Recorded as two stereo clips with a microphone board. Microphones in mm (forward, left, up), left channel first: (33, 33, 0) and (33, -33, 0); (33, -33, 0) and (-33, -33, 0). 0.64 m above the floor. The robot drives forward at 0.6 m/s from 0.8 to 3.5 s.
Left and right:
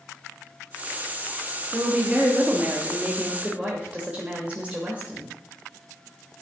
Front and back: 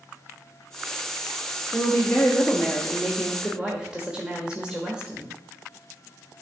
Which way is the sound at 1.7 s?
25° right.